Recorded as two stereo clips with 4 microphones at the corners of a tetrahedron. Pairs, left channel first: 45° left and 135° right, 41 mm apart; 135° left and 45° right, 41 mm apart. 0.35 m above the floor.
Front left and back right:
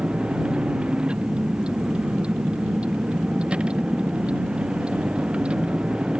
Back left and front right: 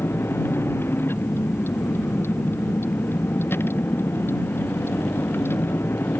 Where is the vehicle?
160° left.